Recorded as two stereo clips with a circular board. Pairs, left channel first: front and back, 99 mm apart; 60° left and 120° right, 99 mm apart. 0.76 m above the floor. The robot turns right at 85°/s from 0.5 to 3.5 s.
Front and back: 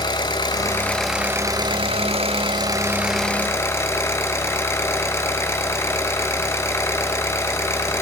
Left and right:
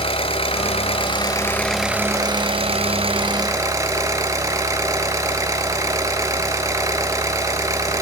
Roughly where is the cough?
I don't hear a cough.